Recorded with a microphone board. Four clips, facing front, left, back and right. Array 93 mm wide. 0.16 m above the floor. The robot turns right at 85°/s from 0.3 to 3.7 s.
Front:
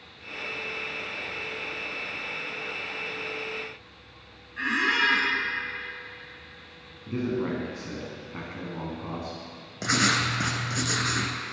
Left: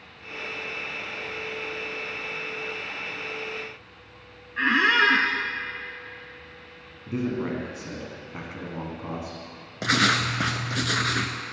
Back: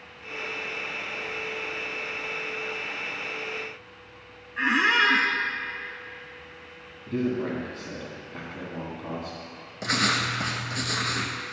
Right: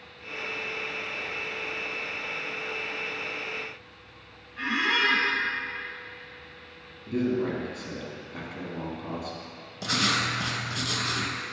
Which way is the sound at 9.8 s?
75° left.